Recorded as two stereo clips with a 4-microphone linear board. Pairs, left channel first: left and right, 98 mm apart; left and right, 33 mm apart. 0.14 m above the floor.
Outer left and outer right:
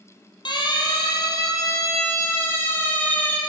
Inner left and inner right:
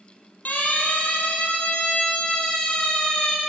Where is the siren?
50° left (ahead or behind), 3 m; by 3.4 s 15° left (ahead or behind), 3 m.